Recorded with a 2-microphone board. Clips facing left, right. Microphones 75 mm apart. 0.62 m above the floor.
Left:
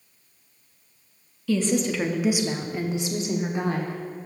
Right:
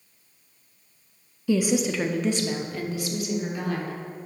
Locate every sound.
1.5 s a woman speaking: 20° right (ahead or behind), 0.5 m; by 4.0 s 30° left (ahead or behind), 1.3 m